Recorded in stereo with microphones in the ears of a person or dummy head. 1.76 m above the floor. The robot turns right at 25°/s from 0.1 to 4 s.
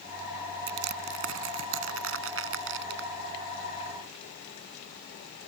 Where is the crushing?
60° right (ahead or behind).